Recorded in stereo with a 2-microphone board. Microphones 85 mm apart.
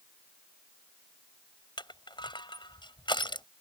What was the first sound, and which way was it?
Crushing, 65° left (ahead or behind).